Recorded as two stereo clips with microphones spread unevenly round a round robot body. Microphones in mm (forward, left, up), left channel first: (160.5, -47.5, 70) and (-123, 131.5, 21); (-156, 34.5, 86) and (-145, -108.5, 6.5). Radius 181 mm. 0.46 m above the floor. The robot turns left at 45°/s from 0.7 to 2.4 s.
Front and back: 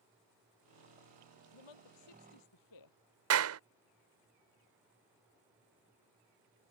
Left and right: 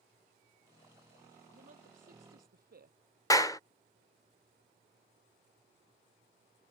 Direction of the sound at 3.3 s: Straight behind.